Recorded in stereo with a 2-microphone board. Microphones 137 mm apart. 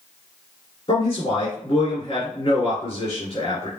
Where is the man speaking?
40° left (ahead or behind), 2.5 m.